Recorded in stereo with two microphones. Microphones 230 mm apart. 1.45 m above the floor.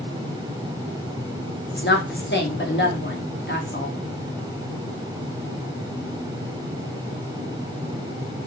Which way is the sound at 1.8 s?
50° left (ahead or behind).